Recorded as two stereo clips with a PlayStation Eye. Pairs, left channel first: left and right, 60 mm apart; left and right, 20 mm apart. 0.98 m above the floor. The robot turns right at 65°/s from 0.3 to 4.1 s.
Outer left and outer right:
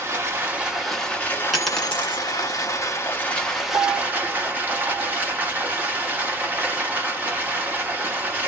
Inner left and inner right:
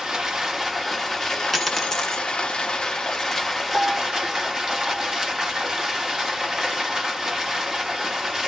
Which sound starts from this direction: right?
A piano, at 3.7 s.